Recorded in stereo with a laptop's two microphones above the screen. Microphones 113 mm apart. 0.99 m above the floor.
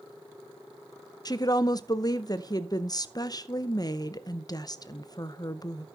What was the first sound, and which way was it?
A woman speaking, 35° left (ahead or behind).